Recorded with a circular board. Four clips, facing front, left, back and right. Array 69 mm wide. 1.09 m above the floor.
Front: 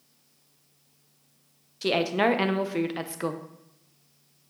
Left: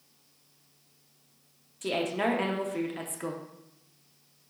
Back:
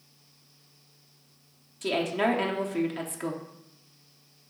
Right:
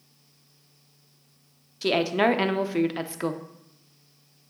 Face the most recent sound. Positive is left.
turn(degrees=-60)